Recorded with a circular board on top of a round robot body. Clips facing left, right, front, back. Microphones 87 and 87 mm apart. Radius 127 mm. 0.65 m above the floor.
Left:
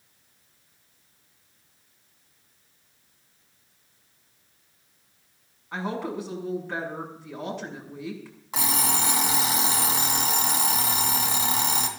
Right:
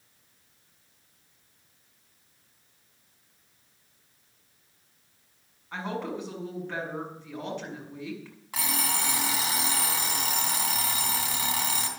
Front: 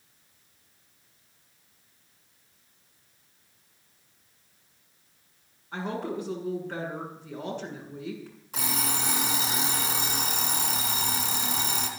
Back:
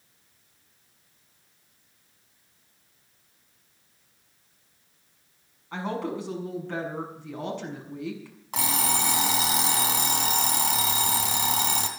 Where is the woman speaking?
170° left, 6.5 m.